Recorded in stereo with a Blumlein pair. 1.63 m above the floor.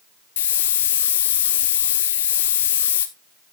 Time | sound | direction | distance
0.4 | a hiss | 60° left | 1.2 m